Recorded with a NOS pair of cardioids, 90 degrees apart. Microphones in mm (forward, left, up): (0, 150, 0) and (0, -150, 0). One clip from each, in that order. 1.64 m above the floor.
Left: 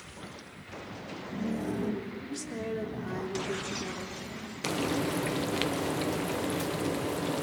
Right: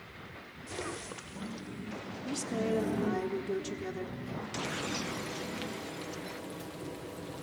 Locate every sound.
2.2 s a woman speaking: 20° right, 4 m
4.6 s frying: 65° left, 1.2 m